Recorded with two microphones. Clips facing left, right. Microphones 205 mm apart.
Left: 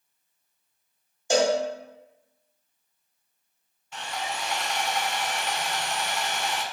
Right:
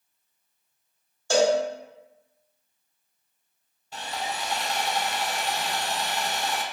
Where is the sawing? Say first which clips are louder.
Right 1 dB; 35° right (ahead or behind), 0.5 m.